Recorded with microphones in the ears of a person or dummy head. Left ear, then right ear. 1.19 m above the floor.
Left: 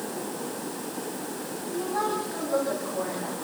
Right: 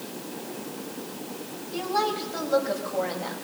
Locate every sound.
1.7 s a woman speaking: 85° right, 8 m; by 3.4 s 80° right, 8.5 m